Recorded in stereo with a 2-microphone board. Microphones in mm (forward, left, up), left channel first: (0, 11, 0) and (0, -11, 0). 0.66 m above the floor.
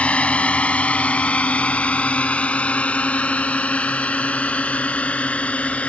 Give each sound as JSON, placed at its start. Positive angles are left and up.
{"t": 0.0, "sound": "a drone", "side_deg": 70}